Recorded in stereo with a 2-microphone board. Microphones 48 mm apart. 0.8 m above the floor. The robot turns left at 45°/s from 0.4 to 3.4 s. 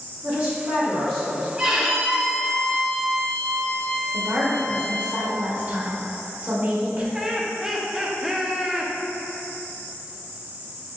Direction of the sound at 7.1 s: 10° right (ahead or behind).